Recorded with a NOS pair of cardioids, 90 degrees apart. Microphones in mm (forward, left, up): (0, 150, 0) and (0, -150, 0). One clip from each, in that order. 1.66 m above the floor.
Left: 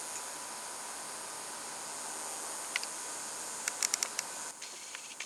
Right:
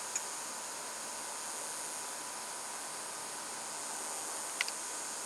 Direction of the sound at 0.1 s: 30° right.